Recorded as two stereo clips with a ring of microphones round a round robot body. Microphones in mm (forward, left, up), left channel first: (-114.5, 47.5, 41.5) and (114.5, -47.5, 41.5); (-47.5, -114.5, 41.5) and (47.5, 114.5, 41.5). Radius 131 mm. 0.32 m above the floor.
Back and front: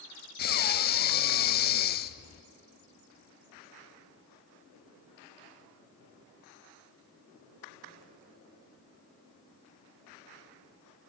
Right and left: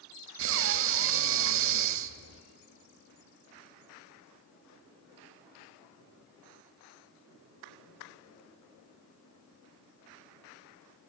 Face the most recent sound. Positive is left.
turn(degrees=105)